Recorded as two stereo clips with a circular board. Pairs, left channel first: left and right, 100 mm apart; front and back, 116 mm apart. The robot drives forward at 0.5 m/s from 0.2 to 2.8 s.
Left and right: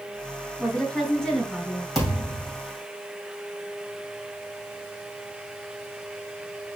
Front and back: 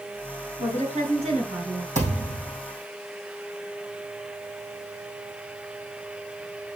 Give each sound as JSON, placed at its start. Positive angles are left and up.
{"t": 0.6, "sound": "a woman speaking", "azimuth_deg": 175, "distance_m": 3.0}
{"t": 1.9, "sound": "a thud", "azimuth_deg": 180, "distance_m": 5.0}